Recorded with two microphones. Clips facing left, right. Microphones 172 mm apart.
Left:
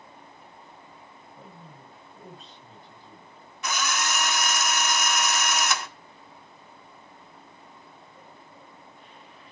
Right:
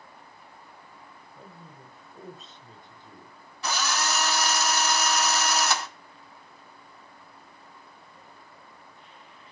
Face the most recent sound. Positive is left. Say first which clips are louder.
# right 1 dB
turn(degrees=-30)  # may be behind; listen again after turning